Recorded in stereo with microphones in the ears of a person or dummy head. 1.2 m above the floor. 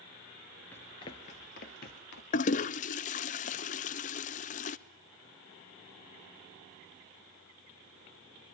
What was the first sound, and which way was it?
Running footsteps, 10° left (ahead or behind).